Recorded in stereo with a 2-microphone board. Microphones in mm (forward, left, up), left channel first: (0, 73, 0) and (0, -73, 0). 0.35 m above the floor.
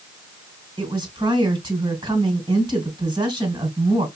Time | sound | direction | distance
0.8 | a woman speaking | 30° right (ahead or behind) | 2 m